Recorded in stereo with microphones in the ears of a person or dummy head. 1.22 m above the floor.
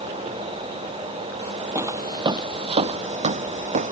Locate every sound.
1.8 s footsteps: 15° right (ahead or behind); by 3.9 s 40° right (ahead or behind)